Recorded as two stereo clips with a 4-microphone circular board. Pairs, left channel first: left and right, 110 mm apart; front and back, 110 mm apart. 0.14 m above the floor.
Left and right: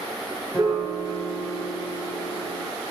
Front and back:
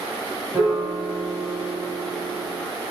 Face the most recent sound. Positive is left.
turn(degrees=-100)